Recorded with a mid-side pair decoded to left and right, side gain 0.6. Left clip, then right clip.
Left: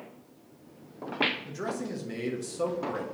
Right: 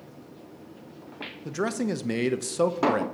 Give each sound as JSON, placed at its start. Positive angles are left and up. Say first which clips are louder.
{"t": 1.4, "sound": "a man speaking", "louder": "right 6 dB", "azimuth_deg": -50, "distance_m": 0.7}